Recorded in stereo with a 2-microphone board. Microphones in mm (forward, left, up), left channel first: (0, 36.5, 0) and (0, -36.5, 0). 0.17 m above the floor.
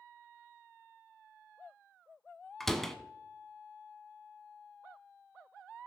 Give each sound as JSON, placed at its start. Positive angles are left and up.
{"t": 2.6, "sound": "a door slam", "side_deg": 5, "distance_m": 0.8}